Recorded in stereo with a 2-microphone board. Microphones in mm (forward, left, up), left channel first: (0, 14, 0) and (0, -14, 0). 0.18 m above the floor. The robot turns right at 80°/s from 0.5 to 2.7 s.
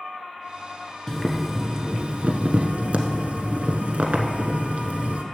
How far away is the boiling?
About 0.9 m.